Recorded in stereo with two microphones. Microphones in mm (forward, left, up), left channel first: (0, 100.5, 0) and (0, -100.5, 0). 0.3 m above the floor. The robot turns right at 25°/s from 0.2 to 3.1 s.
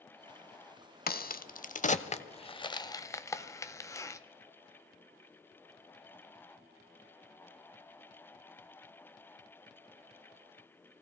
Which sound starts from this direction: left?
A crack, at 1.1 s.